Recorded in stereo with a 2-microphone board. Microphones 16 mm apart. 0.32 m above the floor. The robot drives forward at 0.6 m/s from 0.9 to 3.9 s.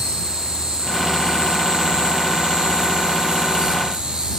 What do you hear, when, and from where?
0.0 s an insect: 55° right (ahead or behind), 2.5 m; by 4.4 s 85° right, 2.5 m